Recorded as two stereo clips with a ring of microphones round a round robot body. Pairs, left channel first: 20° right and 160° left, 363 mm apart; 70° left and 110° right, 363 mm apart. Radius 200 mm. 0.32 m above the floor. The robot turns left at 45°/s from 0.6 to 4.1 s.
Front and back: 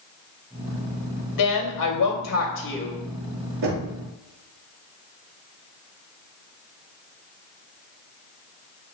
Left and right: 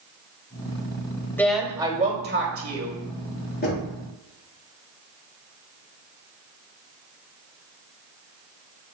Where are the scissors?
I don't hear scissors.